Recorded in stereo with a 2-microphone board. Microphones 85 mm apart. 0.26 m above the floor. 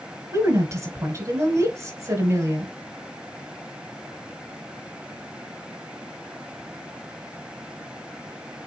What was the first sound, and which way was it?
A woman speaking, 35° right (ahead or behind).